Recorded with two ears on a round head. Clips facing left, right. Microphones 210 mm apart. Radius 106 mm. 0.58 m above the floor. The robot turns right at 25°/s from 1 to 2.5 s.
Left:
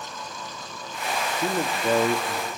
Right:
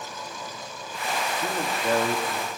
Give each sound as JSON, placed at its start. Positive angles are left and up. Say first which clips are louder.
{"t": 1.4, "sound": "a man speaking", "louder": "left 4 dB", "side_deg": 15, "distance_m": 0.6}